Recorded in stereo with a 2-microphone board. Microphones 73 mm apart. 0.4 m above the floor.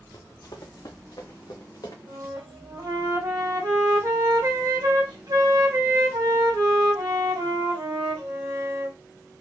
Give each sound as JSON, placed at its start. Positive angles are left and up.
{"t": 0.1, "sound": "running footsteps", "side_deg": 55, "distance_m": 1.0}
{"t": 2.1, "sound": "a flute", "side_deg": -60, "distance_m": 2.0}